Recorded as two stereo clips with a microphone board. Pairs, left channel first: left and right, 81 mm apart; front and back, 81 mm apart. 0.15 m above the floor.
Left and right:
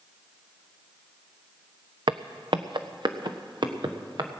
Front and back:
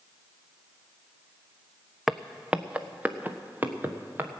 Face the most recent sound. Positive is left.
turn(degrees=-115)